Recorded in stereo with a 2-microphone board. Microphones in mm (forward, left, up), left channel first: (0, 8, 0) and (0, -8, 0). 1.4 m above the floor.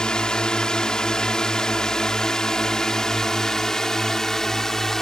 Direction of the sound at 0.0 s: 55° left (ahead or behind).